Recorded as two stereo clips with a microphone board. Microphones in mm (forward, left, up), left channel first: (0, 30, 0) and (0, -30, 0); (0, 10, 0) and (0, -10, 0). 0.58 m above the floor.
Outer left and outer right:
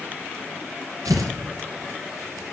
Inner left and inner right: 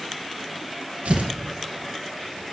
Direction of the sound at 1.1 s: 70° right (ahead or behind).